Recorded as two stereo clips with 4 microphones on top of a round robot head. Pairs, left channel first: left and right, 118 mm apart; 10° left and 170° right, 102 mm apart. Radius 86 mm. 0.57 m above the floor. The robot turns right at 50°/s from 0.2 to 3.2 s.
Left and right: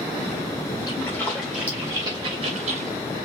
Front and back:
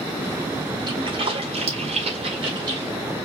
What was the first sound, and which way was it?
A splash, 150° left.